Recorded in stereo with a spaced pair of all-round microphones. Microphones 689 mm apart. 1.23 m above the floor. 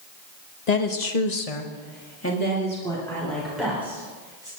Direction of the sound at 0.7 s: 70° left (ahead or behind).